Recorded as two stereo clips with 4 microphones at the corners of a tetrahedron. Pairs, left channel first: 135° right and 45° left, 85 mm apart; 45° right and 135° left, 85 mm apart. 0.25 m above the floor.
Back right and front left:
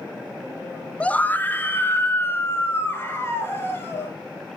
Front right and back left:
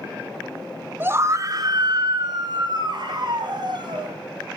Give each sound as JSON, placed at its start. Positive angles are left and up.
{"t": 1.0, "sound": "a scream", "azimuth_deg": 165, "distance_m": 1.0}